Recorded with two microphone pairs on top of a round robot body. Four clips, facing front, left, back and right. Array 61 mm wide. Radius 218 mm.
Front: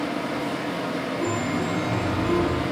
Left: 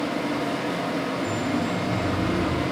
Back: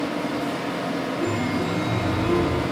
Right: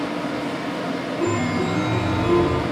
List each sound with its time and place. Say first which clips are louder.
1.2 s a chime: right 3 dB, even; 90° right, 2 m